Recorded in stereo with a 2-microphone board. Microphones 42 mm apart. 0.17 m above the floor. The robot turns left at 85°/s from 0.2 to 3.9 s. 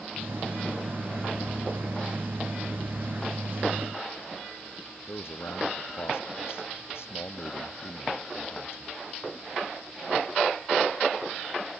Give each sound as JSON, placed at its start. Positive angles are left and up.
{"t": 5.1, "sound": "a man speaking", "side_deg": 80}